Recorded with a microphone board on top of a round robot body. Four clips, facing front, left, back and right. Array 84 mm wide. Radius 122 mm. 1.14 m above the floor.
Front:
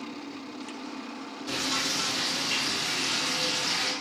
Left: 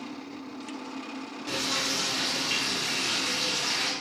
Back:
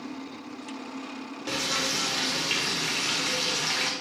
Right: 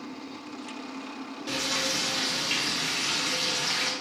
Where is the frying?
175° right, 0.6 m.